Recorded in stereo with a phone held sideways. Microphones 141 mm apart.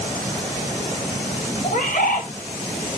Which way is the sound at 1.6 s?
70° left (ahead or behind).